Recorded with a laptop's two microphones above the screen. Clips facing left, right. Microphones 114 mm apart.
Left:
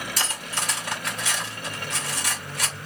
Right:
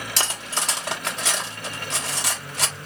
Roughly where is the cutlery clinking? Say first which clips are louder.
Right 4 dB; right.